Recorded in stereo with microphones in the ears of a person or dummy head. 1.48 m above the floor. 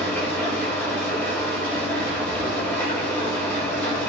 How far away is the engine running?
About 5.5 m.